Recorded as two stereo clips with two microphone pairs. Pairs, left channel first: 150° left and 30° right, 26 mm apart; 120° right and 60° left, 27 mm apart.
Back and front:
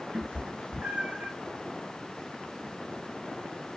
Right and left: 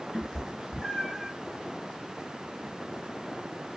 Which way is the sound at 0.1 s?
25° right.